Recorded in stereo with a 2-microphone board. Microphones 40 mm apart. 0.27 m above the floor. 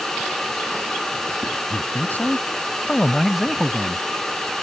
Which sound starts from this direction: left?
A man speaking, at 1.7 s.